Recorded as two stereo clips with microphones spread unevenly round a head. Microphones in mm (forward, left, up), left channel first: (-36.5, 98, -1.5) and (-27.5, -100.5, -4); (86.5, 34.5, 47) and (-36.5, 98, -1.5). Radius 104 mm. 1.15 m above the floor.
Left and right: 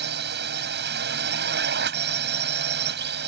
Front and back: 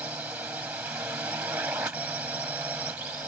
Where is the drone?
120° right.